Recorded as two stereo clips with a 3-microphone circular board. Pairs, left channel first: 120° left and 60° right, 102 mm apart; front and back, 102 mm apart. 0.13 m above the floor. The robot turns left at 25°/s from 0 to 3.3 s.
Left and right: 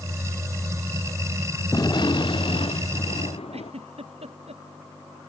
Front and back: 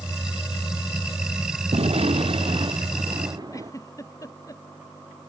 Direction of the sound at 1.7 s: 170° left.